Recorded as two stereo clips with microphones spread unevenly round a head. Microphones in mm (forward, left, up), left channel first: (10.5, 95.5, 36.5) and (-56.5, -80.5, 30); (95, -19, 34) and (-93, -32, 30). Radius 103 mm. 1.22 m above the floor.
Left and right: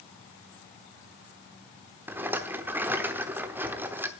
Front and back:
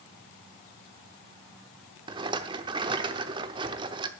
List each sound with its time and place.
2.1 s a rattle: 175° right, 0.8 m